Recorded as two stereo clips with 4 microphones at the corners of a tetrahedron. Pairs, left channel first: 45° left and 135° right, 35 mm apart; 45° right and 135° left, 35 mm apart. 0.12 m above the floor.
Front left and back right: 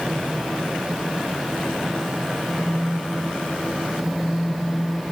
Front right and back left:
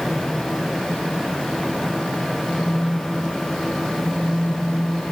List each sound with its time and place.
2.4 s a phone buzzing: 80° right, 9 m